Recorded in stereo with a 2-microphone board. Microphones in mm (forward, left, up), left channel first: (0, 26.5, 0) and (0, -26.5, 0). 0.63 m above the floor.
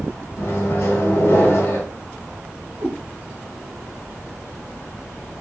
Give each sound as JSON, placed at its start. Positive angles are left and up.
{"t": 0.4, "sound": "a microwave", "side_deg": 60, "distance_m": 1.3}
{"t": 2.8, "sound": "a cat meowing", "side_deg": -55, "distance_m": 2.0}